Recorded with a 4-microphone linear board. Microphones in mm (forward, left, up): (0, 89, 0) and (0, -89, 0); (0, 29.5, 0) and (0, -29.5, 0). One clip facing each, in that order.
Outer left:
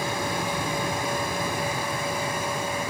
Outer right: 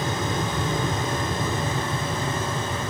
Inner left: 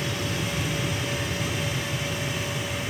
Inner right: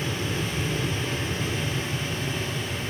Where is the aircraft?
20° right (ahead or behind); by 2.9 s 25° right (ahead or behind).